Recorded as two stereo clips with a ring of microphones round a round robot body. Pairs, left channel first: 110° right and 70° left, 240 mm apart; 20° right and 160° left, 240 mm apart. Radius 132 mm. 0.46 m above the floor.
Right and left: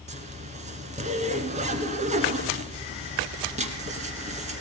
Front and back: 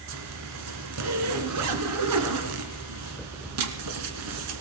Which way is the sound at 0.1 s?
130° left.